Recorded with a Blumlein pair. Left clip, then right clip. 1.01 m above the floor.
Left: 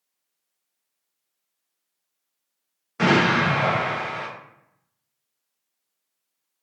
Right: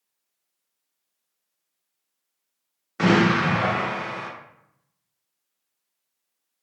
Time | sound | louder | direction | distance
3.0 | an explosion | left 1 dB | 5° right | 1.0 m